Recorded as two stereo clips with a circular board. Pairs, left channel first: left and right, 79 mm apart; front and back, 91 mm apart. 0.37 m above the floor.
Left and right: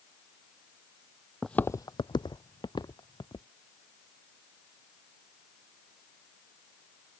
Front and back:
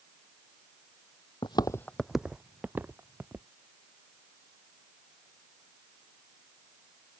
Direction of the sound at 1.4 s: Straight ahead.